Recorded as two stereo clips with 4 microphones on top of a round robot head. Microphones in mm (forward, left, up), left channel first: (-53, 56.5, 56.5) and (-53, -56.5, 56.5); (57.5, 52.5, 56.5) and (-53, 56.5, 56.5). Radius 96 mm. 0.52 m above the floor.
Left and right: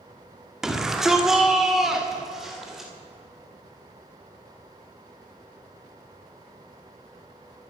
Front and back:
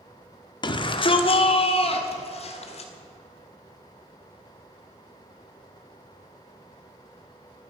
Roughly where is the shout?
Ahead.